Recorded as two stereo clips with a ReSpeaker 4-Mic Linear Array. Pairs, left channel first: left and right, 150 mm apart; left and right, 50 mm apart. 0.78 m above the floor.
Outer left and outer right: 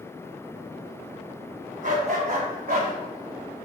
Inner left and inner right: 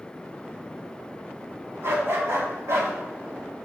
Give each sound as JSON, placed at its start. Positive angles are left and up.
{"t": 1.8, "sound": "a dog barking", "side_deg": -65, "distance_m": 2.5}